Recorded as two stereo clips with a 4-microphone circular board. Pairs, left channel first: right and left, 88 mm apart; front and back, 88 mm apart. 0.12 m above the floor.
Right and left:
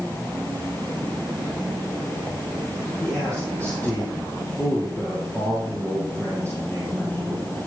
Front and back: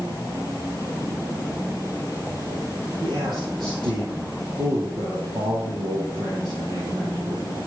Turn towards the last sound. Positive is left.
turn(degrees=-155)